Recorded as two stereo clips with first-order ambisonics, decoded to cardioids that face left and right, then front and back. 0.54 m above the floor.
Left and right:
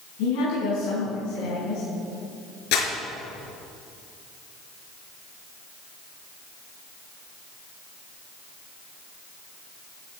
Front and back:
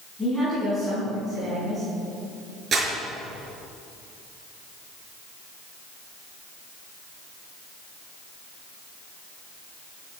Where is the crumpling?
115° left, 4.5 m.